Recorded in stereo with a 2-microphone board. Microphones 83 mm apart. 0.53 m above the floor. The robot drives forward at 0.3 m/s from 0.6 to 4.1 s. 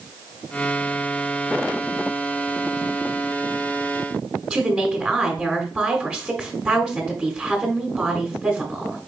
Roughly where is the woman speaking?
Centre.